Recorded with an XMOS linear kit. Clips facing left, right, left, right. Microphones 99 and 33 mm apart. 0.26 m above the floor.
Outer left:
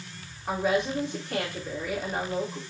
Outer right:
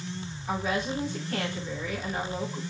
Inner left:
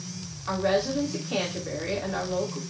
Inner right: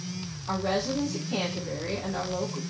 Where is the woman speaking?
60° left (ahead or behind), 2.5 m.